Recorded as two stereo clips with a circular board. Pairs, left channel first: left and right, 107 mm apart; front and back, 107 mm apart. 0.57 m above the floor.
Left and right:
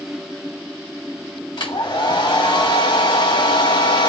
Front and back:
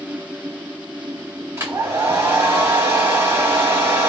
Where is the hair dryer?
115° left, 2 m.